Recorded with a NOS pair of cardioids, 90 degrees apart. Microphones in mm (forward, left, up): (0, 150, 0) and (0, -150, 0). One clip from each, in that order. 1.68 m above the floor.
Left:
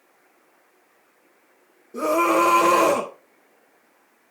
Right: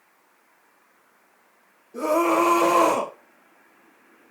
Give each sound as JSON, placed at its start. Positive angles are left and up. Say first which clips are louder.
{"t": 1.9, "sound": "a scream", "louder": "left 1 dB", "azimuth_deg": 30, "distance_m": 2.5}